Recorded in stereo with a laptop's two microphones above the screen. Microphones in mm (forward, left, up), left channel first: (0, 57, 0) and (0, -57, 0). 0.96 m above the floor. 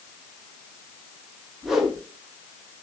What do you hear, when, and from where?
1.6 s a whoosh: 5° right (ahead or behind), 0.7 m